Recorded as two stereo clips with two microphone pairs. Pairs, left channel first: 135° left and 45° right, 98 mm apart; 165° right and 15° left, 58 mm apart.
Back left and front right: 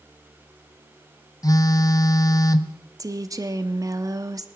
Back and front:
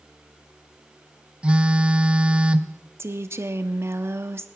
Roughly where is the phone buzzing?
Left.